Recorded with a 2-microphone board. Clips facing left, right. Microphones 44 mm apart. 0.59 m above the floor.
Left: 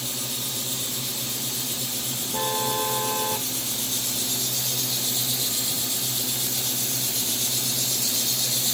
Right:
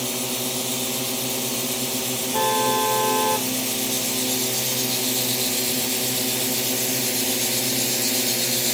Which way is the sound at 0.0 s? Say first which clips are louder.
Right 6 dB; 85° right.